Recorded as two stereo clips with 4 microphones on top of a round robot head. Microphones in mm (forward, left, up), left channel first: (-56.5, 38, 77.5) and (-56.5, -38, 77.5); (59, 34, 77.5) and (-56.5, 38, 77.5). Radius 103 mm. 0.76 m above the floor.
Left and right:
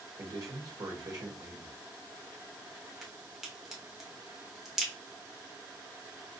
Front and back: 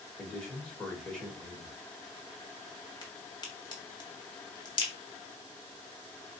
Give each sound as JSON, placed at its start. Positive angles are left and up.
{"t": 0.2, "sound": "a man speaking", "azimuth_deg": -80, "distance_m": 1.3}
{"t": 3.0, "sound": "a crack", "azimuth_deg": -5, "distance_m": 1.2}